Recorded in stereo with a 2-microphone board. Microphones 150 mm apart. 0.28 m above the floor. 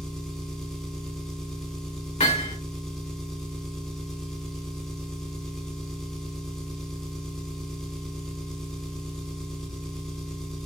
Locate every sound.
0.0 s an engine running: 5° left (ahead or behind), 0.8 m
2.2 s hammering: 50° left (ahead or behind), 2 m